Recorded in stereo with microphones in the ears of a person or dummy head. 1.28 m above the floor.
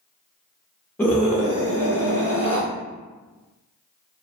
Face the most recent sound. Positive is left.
turn(degrees=-40)  # may be behind; listen again after turning